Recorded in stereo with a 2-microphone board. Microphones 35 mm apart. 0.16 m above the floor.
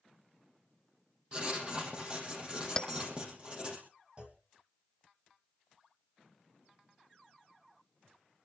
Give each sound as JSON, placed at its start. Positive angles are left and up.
{"t": 1.3, "sound": "writing", "side_deg": -25, "distance_m": 5.5}
{"t": 2.8, "sound": "a bell", "side_deg": 15, "distance_m": 0.9}
{"t": 4.2, "sound": "a clunk", "side_deg": -25, "distance_m": 1.9}